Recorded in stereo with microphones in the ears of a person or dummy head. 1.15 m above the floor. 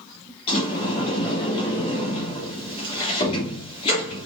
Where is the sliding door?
30° left (ahead or behind), 2.5 m.